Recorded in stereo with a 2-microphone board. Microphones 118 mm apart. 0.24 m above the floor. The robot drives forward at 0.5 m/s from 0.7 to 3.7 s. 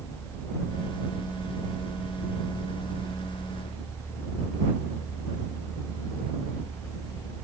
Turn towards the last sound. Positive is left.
No sound to turn to.